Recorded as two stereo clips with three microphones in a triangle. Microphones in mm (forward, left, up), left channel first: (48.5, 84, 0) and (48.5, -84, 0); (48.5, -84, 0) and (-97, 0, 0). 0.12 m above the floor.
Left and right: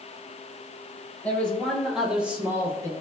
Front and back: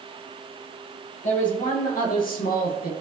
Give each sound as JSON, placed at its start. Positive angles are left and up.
{"t": 1.2, "sound": "a man speaking", "azimuth_deg": 10, "distance_m": 3.0}